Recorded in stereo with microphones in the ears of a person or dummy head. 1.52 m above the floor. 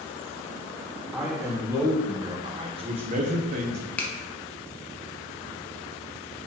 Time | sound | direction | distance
1.1 | a man speaking | 5° right (ahead or behind) | 1.8 m
4.0 | a finger snap | 10° left (ahead or behind) | 1.1 m